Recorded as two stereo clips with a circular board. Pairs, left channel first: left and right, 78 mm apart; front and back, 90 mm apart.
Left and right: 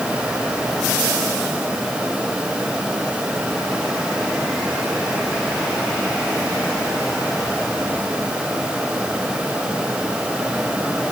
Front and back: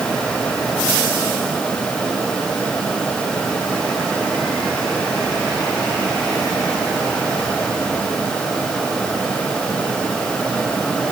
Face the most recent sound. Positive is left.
No sound to turn to.